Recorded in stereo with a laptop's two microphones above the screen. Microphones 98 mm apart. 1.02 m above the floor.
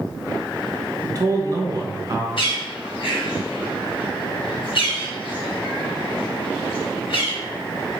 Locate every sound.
1.0 s a man speaking: 40° right (ahead or behind), 0.8 m
2.4 s a bird: 65° left (ahead or behind), 0.9 m